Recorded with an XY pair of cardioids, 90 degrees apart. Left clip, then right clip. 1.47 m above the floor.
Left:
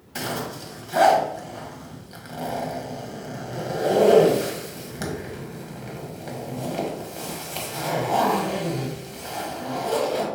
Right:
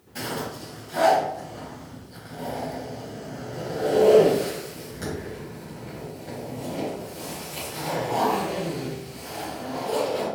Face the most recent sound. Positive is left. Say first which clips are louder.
# left 2 dB
turn(degrees=70)